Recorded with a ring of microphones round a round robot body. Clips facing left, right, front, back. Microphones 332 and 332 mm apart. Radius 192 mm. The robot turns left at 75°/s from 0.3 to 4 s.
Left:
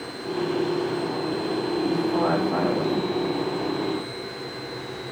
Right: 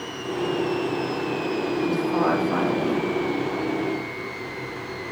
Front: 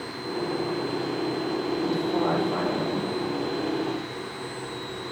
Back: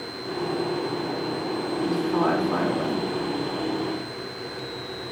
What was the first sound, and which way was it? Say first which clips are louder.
A woman speaking: even, back 4 dB; 85° right.